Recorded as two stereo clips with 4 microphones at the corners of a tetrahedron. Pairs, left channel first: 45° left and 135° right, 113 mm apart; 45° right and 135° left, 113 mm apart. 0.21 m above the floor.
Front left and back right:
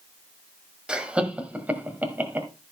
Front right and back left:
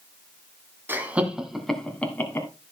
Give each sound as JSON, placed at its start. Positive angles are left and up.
{"t": 0.9, "sound": "laughter", "azimuth_deg": 155, "distance_m": 1.5}